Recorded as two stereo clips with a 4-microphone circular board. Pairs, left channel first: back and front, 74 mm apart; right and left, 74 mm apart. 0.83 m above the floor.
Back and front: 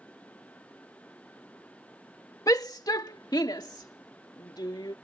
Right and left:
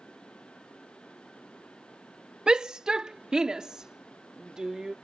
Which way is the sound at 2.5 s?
165° left.